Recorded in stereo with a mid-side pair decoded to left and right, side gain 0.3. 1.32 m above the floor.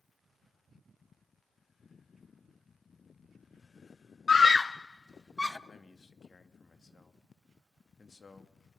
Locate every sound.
4.3 s a scream: 55° left, 0.5 m; by 5.6 s 20° left, 1.4 m
5.7 s a man speaking: 40° left, 2 m